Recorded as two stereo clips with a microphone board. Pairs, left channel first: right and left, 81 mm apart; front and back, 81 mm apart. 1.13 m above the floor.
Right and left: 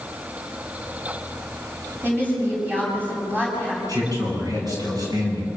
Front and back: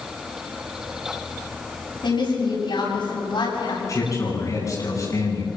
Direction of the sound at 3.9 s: 50° left.